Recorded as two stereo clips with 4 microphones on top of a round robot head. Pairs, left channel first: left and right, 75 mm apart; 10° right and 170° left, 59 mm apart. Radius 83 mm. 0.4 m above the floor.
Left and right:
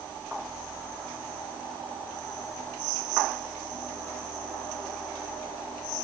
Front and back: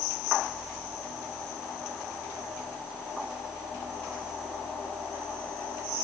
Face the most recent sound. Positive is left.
No sound to turn to.